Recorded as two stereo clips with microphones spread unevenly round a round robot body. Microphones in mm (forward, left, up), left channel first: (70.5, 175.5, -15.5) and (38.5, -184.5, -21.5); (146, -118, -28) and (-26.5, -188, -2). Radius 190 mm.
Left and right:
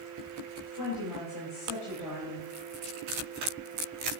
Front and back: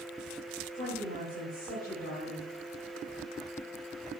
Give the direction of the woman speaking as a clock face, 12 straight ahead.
9 o'clock.